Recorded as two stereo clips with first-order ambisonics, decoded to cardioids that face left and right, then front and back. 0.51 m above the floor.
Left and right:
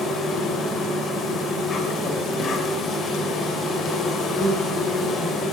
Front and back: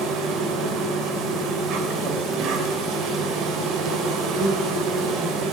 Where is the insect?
145° left, 2.5 m.